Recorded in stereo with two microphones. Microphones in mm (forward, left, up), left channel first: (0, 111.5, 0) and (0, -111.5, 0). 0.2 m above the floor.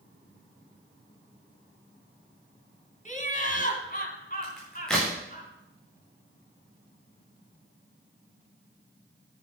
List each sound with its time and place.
3.0 s laughter: 35° left (ahead or behind), 2 m
4.4 s a crack: 5° left (ahead or behind), 5.5 m